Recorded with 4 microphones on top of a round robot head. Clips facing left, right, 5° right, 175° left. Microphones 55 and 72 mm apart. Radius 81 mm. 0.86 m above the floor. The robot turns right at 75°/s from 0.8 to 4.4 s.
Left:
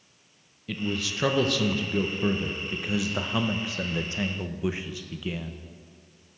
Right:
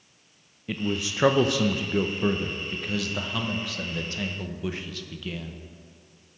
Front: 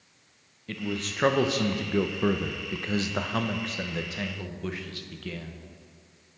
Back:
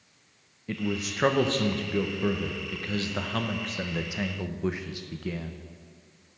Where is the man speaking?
130° right, 0.7 m; by 5.6 s 140° left, 0.7 m.